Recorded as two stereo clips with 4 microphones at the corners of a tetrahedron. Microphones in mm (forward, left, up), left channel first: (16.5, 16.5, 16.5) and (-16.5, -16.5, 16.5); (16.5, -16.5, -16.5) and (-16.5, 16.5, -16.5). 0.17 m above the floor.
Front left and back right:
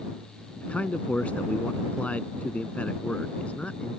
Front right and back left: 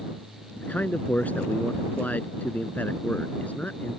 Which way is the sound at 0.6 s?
5° right.